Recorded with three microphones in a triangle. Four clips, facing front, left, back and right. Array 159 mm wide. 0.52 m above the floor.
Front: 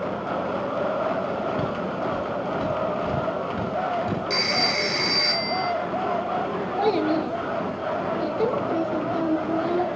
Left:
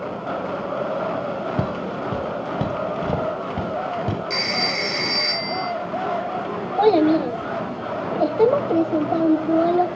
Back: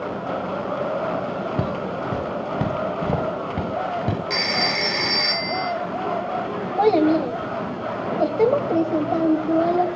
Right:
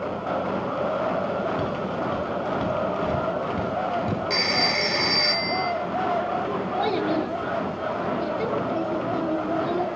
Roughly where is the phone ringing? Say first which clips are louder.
Even, back 1 dB; behind right.